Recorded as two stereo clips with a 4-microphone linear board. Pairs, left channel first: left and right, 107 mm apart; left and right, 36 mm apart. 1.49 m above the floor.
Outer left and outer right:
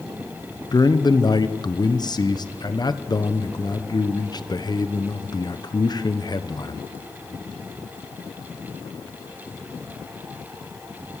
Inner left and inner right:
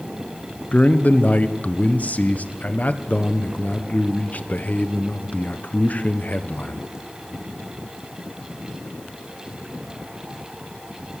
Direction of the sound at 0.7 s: 40° left (ahead or behind).